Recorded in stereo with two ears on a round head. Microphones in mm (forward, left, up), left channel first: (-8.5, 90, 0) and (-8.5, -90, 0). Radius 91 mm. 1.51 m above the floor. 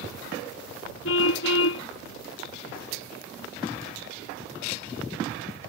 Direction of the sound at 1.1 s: 75° left (ahead or behind).